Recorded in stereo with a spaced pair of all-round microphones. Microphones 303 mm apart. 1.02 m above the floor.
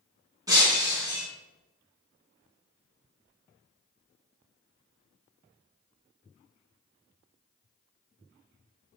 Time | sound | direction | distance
0.5 | breaking glass | 10° right (ahead or behind) | 4 m